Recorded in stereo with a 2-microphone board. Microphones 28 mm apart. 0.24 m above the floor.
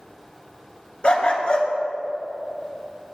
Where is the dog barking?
40° left (ahead or behind), 0.9 m.